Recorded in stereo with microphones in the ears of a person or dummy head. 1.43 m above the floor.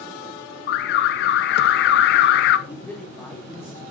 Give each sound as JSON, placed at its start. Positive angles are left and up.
{"t": 0.7, "sound": "an alarm", "side_deg": 75, "distance_m": 1.2}
{"t": 2.7, "sound": "a man speaking", "side_deg": 15, "distance_m": 3.0}